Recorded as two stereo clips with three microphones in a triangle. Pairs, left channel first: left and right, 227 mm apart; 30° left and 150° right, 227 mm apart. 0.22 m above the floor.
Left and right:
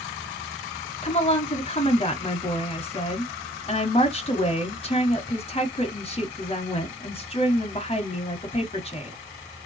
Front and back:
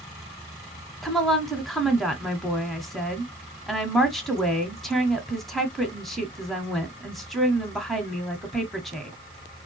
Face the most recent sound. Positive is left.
turn(degrees=120)